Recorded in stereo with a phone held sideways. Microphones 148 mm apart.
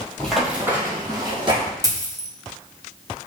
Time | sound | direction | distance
0.2 | running footsteps | 5° left (ahead or behind) | 1.6 m
1.8 | a dropped coin | 25° right (ahead or behind) | 0.9 m